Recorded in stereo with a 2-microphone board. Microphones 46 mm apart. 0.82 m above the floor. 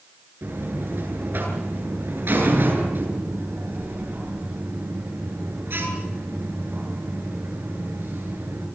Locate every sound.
0.4 s a buzzer: 55° right (ahead or behind), 10 m